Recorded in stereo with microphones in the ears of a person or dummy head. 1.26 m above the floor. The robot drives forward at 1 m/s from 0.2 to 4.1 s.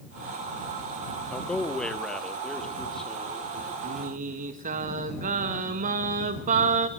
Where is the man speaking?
5° left (ahead or behind), 0.8 m; by 3.7 s centre (ahead or behind), 3 m.